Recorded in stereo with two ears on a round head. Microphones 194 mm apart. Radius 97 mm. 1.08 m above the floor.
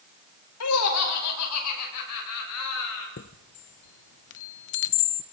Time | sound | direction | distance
0.6 | laughter | 80° left | 4.5 m
3.2 | a chime | 55° left (ahead or behind) | 0.7 m